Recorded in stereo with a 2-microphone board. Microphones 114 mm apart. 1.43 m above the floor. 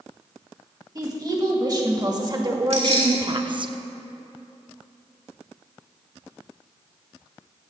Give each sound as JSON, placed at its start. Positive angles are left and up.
{"t": 0.9, "sound": "a woman speaking", "side_deg": -35, "distance_m": 2.5}
{"t": 2.7, "sound": "keys jangling", "side_deg": -75, "distance_m": 3.0}